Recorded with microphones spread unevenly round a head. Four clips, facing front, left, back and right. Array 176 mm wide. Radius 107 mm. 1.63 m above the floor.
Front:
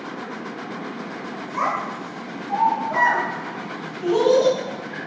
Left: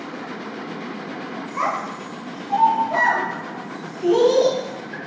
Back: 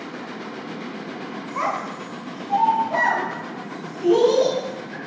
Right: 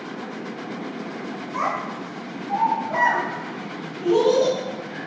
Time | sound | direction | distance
1.5 | a child speaking | 110° right | 1.4 m